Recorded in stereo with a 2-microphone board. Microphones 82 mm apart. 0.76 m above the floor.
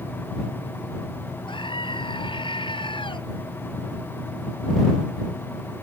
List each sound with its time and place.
1.5 s a scream: 85° left